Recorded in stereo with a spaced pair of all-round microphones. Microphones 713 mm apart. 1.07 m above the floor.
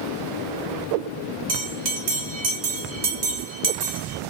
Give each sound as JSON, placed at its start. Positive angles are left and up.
{"t": 1.5, "sound": "a bell", "side_deg": -75, "distance_m": 0.8}